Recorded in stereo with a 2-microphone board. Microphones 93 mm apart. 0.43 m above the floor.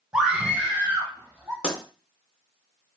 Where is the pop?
10° left (ahead or behind), 2 m.